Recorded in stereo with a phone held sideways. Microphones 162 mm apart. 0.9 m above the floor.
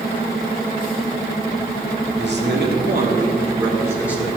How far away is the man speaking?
About 2 m.